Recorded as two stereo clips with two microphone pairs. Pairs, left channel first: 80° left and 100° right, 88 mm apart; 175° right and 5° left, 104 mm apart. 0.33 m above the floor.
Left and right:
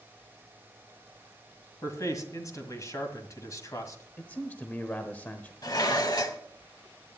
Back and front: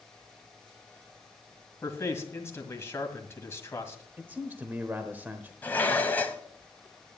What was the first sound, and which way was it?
A man speaking, 125° left.